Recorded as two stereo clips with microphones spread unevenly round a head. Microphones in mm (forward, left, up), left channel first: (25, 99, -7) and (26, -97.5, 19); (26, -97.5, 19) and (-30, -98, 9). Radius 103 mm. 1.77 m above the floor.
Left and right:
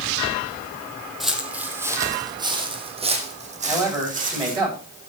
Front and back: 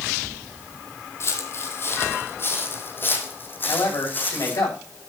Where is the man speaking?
20° right, 9 m.